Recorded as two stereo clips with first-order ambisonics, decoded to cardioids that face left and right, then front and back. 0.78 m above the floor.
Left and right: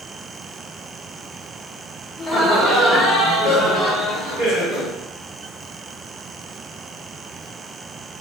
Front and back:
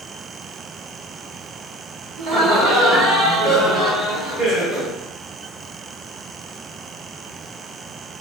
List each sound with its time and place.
2.2 s laughter: 150° left, 1.2 m; by 4.9 s 75° left, 1.3 m